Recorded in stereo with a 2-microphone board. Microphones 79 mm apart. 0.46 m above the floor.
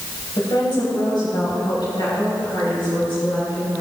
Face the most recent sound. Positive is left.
turn(degrees=75)  # may be behind; listen again after turning